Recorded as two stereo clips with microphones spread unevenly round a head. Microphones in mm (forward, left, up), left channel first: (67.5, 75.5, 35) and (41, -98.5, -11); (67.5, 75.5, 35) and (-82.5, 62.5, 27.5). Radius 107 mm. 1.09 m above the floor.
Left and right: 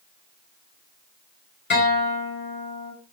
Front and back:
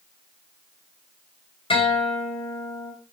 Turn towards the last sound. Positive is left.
turn(degrees=60)